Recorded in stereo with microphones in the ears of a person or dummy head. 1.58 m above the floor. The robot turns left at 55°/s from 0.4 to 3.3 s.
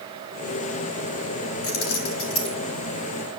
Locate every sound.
1.6 s keys jangling: 80° left, 3 m; by 2.5 s 35° left (ahead or behind), 3 m